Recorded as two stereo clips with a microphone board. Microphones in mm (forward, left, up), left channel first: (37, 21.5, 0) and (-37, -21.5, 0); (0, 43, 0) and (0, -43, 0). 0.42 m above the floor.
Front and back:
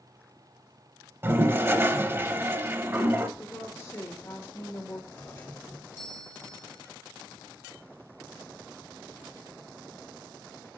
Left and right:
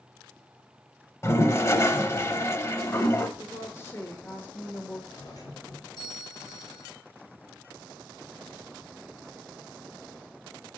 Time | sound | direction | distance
1.2 | a toilet flushing | 150° left | 0.6 m
3.4 | a woman speaking | 55° left | 1.1 m
5.1 | a doorbell | 85° left | 2.5 m